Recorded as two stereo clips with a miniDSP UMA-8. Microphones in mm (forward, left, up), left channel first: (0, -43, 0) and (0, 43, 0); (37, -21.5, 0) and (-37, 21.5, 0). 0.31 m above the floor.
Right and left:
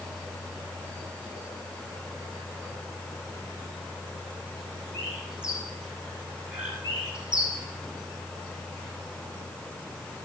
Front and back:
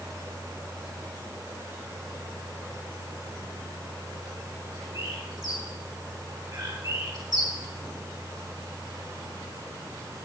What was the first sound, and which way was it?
A bird, 165° left.